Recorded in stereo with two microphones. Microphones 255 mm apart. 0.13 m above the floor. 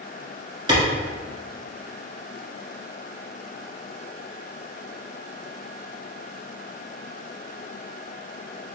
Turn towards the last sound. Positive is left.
turn(degrees=-15)  # may be behind; listen again after turning